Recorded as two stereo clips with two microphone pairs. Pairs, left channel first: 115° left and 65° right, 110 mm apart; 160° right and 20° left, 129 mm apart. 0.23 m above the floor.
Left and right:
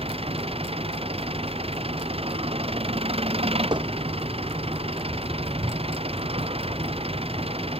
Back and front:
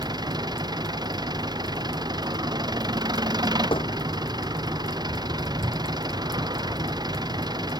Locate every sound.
0.0 s an engine running: 35° right
3.7 s hammering: 110° right